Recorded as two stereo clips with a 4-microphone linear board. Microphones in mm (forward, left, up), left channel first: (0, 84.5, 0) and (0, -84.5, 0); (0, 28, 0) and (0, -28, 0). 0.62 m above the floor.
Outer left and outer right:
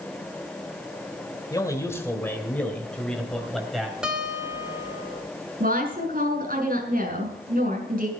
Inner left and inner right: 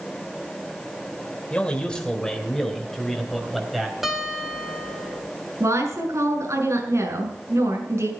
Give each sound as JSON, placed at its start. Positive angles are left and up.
{"t": 1.5, "sound": "a man speaking", "side_deg": 20, "distance_m": 2.5}
{"t": 4.0, "sound": "a guitar", "side_deg": -5, "distance_m": 2.5}
{"t": 5.6, "sound": "a woman speaking", "side_deg": -60, "distance_m": 5.5}